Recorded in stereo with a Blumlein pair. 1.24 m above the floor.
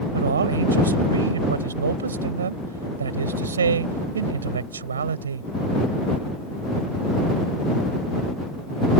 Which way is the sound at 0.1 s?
70° right.